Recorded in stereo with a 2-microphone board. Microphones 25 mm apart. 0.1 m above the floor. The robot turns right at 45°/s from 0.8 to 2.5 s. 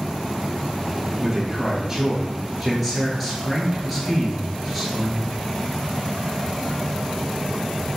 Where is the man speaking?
50° right, 1.4 m; by 5.4 s 10° left, 1.4 m.